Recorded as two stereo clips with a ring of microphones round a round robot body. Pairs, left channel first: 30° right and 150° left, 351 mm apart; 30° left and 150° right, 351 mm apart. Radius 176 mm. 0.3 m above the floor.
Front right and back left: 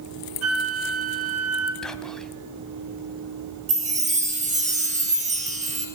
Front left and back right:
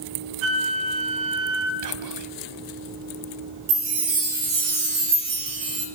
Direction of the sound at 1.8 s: 120° right.